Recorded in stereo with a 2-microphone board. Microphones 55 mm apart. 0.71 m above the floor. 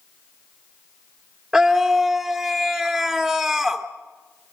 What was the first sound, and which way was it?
A scream, 15° right (ahead or behind).